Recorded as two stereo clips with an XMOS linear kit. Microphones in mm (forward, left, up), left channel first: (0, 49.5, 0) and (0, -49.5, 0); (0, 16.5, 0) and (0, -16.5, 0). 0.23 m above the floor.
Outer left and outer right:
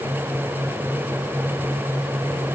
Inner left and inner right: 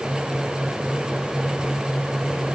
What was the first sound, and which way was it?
Only background noise.